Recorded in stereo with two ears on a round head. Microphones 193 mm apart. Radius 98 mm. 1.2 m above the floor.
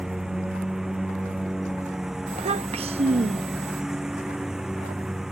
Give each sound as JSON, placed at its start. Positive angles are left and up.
{"t": 0.0, "sound": "a lawn mower", "side_deg": 0}
{"t": 2.3, "sound": "a child speaking", "side_deg": -30}